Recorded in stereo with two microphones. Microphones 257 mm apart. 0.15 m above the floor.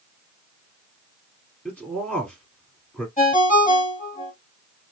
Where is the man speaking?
5° left (ahead or behind), 1.9 m.